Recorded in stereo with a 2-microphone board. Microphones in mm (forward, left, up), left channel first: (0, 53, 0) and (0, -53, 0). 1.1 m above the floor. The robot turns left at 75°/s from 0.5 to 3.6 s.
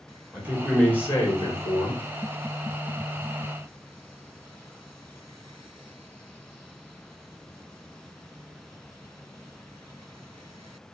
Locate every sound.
0.3 s a man speaking: 165° right, 1.1 m; by 2.0 s 80° left, 1.1 m